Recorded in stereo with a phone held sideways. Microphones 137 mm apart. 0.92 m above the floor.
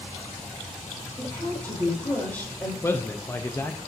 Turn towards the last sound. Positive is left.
turn(degrees=20)  # may be behind; listen again after turning